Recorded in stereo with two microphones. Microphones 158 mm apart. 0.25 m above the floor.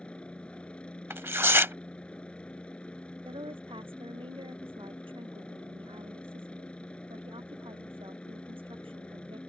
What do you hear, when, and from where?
0.0 s a helicopter: 5° left (ahead or behind)
1.1 s tearing paper: 15° right (ahead or behind)
3.2 s a woman speaking: 35° right (ahead or behind)